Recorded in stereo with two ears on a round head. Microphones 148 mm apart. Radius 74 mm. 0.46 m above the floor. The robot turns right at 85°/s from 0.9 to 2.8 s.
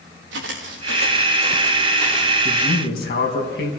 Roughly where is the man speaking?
Left.